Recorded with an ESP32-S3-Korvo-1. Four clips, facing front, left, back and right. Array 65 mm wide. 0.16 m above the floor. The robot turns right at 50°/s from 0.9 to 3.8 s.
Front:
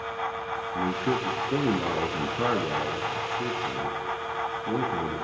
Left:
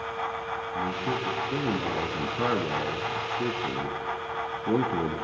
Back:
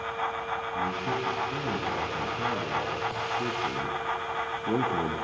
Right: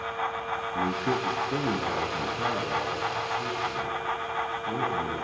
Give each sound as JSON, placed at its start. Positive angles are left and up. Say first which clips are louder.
{"t": 0.8, "sound": "a man speaking", "louder": "right 2 dB, front 5 dB", "azimuth_deg": -35, "distance_m": 2.5}